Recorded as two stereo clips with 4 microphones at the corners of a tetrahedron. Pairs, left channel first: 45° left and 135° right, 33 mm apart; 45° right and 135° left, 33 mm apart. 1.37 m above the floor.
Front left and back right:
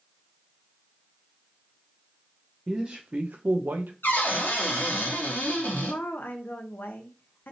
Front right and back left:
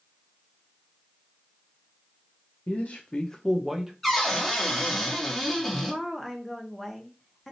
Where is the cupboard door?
45° left, 0.8 m.